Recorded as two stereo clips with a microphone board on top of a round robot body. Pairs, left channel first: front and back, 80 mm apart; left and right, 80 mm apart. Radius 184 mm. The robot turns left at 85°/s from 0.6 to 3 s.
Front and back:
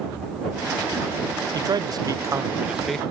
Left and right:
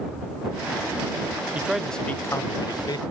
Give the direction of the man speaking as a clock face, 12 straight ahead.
5 o'clock.